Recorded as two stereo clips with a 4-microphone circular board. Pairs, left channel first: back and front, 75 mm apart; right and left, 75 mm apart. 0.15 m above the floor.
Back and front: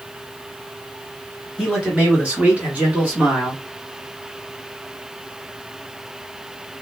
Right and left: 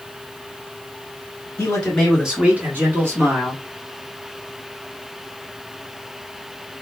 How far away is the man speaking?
About 1.4 m.